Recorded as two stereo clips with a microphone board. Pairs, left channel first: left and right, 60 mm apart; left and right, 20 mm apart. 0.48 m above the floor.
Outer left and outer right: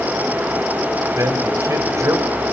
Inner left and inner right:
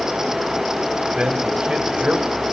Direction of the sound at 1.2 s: 60° right (ahead or behind).